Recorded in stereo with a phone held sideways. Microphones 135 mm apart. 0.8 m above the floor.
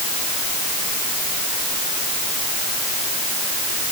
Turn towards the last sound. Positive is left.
No sound to turn to.